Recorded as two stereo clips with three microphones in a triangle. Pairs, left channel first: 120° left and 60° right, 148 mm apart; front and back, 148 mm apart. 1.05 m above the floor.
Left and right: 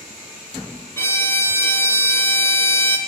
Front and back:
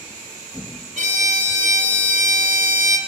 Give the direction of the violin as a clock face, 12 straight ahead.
6 o'clock.